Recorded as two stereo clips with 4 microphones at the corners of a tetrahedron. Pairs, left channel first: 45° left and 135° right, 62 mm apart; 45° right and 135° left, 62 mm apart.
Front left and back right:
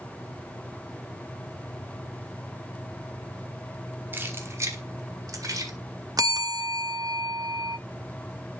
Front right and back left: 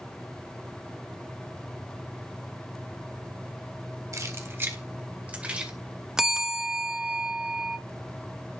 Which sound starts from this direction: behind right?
A bell, at 6.2 s.